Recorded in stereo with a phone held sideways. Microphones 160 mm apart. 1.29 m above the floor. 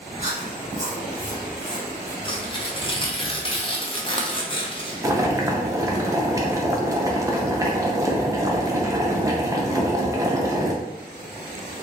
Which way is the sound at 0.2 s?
50° right (ahead or behind).